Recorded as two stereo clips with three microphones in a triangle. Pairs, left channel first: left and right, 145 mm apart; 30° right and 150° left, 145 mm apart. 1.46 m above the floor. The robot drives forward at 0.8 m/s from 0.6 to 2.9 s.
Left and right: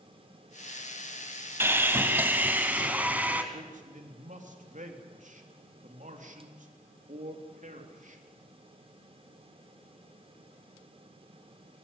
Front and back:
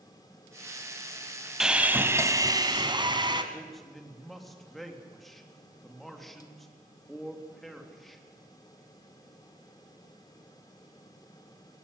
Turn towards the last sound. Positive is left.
turn(degrees=-120)